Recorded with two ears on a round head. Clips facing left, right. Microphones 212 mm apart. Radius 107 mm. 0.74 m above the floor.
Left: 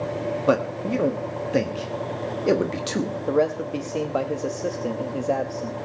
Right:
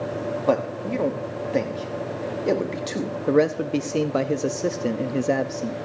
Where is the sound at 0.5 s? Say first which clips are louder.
Left 1 dB; 10° left (ahead or behind), 1.0 m.